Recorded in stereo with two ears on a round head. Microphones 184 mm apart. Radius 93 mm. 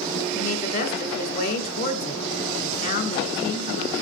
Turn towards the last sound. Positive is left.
turn(degrees=50)  # may be behind; listen again after turning